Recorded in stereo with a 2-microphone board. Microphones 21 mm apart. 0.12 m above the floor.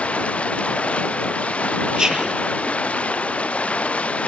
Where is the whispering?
35° right (ahead or behind).